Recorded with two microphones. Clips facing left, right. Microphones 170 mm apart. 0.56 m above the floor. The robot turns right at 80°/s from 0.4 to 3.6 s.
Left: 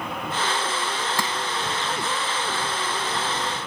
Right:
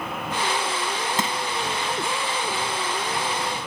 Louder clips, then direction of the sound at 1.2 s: Right 1 dB; 20° right (ahead or behind).